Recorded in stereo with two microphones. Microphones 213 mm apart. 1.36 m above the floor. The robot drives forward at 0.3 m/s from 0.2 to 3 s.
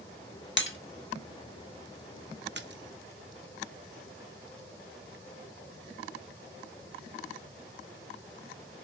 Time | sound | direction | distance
0.6 | breaking glass | 60° left (ahead or behind) | 1.3 m
2.5 | a splash | 55° right (ahead or behind) | 0.7 m